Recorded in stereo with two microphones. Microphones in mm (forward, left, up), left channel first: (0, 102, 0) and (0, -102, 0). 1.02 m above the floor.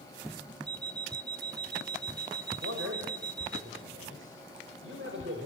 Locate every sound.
0.7 s an alarm clock: 20° right (ahead or behind), 0.8 m
2.6 s a man speaking: 80° right, 5 m